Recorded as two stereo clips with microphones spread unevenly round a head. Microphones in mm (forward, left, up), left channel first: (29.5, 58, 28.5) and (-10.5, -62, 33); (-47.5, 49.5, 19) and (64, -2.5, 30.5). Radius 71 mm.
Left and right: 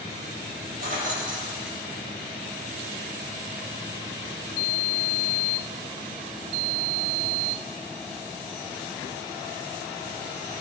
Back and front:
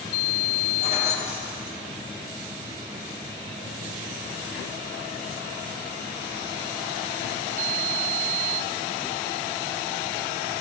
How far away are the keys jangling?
About 1.7 m.